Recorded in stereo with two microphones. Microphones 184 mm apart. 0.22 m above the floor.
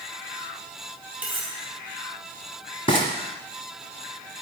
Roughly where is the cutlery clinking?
Centre.